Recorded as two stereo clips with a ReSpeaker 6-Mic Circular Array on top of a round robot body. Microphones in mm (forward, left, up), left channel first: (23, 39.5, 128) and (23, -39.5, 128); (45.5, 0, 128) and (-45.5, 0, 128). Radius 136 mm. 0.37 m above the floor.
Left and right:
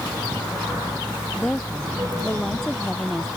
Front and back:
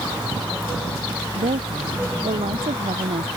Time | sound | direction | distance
1.4 | a woman speaking | 175° left | ?